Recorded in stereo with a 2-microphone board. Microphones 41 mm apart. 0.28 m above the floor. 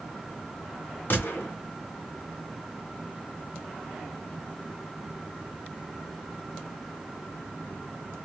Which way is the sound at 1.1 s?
55° left (ahead or behind).